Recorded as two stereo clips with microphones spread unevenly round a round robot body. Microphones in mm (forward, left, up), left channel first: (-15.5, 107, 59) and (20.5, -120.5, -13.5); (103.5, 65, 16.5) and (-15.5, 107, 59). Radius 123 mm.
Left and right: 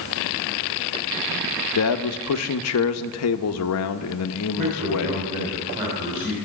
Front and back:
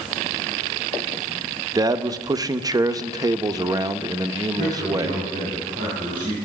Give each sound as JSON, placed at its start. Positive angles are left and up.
{"t": 1.8, "sound": "a man speaking", "azimuth_deg": 90, "distance_m": 0.8}
{"t": 4.6, "sound": "a man speaking", "azimuth_deg": -135, "distance_m": 3.5}